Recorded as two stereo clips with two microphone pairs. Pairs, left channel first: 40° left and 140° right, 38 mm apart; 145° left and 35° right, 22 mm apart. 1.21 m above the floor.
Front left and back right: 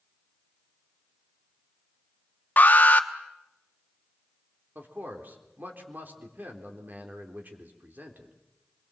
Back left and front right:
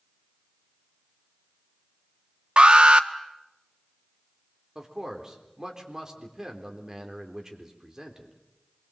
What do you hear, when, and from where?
2.6 s an alarm: 5° right, 1.2 m
4.8 s a man speaking: 100° right, 3.5 m